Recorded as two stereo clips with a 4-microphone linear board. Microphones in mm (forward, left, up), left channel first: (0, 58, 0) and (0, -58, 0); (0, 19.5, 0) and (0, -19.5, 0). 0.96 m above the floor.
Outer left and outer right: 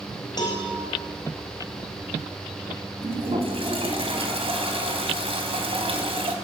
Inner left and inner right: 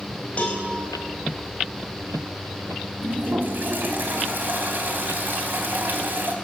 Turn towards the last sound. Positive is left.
turn(degrees=-55)  # may be behind; listen again after turning